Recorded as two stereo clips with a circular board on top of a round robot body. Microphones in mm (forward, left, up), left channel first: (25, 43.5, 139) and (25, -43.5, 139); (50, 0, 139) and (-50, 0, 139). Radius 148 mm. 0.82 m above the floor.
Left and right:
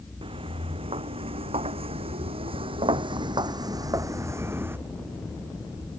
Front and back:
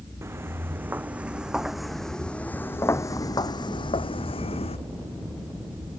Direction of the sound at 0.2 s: 115° right.